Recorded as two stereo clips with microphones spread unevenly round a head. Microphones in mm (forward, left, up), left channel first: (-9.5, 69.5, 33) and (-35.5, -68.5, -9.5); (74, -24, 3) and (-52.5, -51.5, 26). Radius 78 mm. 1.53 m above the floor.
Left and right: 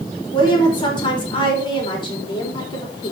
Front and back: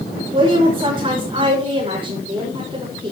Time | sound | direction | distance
0.3 | a woman speaking | 135° left | 4.5 m